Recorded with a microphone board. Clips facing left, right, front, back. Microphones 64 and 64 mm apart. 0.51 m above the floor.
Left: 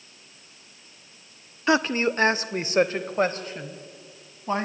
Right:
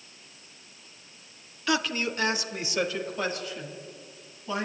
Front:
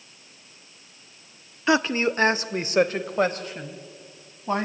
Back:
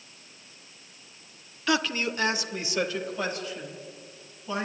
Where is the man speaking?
50° left, 0.9 m; by 4.7 s 40° left, 3.5 m.